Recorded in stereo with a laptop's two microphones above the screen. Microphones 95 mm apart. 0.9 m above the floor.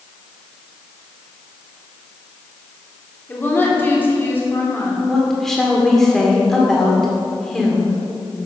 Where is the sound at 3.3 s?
20° left (ahead or behind), 2.5 m.